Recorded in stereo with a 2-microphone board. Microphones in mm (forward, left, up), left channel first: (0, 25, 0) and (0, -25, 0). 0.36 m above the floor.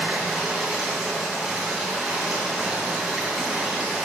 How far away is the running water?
About 2.5 m.